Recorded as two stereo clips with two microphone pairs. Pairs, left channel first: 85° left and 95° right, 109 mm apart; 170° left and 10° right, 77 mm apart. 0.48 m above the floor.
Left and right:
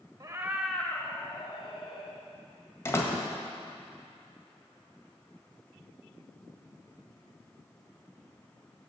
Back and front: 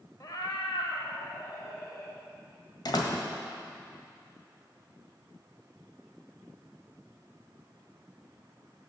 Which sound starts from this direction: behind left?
A door slam, at 2.9 s.